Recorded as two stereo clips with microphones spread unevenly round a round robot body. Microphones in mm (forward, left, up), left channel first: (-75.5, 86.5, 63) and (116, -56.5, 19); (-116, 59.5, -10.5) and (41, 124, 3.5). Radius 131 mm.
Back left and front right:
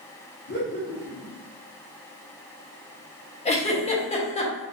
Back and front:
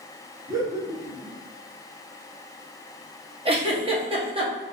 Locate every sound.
0.5 s laughter: 95° left, 1.7 m
3.5 s a giggle: 75° left, 1.1 m